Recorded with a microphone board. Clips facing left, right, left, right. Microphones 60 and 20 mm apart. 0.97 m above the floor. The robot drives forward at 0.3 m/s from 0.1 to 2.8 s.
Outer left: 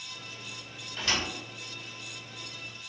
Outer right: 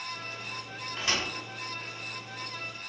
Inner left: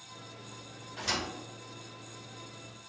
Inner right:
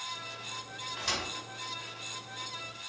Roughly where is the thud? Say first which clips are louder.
Even, inner left 1 dB; right.